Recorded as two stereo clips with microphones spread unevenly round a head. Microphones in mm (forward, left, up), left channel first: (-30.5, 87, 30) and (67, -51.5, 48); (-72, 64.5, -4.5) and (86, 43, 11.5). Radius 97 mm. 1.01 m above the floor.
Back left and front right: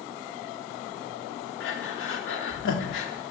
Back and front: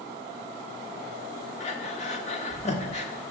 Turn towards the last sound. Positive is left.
turn(degrees=125)